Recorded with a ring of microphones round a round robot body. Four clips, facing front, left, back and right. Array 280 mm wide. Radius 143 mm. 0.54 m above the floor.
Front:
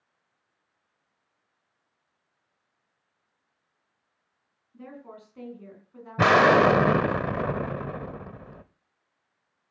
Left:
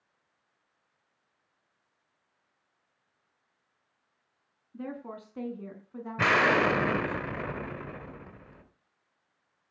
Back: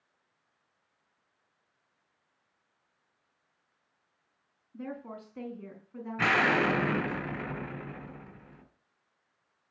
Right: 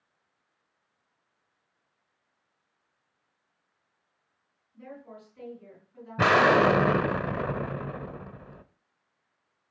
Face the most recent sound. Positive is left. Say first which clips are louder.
# right 4 dB, front 9 dB
turn(degrees=-30)